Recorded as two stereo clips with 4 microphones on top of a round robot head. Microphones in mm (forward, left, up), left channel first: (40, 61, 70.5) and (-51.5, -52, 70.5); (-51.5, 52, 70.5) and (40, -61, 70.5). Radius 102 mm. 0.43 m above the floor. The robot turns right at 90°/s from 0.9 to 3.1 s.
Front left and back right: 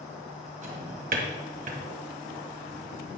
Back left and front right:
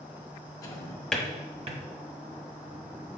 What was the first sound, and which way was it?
A drawer, 165° right.